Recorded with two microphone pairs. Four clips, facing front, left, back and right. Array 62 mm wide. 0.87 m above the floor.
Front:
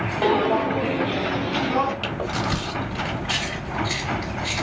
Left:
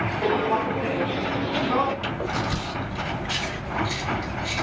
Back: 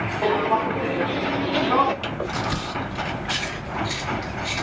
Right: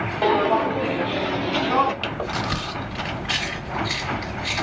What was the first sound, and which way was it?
Footsteps, 55° right.